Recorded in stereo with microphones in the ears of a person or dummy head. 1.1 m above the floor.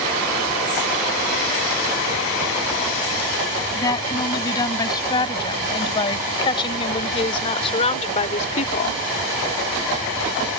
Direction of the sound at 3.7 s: 25° left (ahead or behind).